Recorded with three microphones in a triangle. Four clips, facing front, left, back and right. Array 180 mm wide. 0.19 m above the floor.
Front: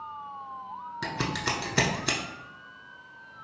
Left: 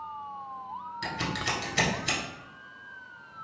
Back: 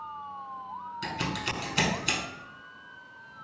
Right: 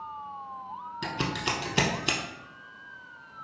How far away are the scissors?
About 0.6 m.